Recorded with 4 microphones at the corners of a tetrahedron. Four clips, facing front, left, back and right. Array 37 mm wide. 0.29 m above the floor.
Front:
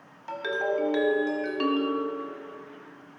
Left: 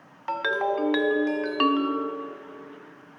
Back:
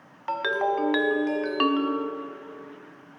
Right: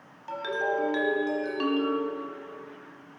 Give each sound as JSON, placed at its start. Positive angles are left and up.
{"t": 0.3, "sound": "a ringtone", "azimuth_deg": 135, "distance_m": 0.7}